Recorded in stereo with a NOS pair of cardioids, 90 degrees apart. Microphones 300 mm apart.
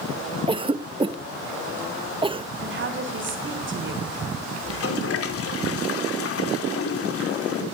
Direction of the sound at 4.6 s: 50° left.